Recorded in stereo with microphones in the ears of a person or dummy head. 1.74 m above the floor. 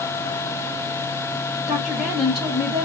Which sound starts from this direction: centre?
A woman speaking, at 1.7 s.